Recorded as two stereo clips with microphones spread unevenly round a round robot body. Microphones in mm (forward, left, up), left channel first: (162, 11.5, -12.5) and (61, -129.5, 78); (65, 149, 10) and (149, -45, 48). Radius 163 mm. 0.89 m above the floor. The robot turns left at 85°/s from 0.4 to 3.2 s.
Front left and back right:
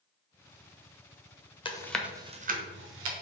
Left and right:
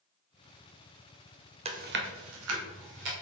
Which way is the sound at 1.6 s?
Straight ahead.